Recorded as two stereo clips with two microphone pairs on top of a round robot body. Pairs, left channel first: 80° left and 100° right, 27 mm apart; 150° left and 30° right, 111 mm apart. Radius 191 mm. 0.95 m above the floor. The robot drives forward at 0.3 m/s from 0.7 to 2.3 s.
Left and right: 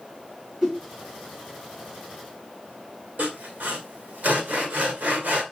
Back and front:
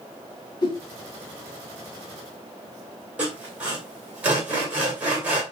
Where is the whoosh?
160° right, 3 m.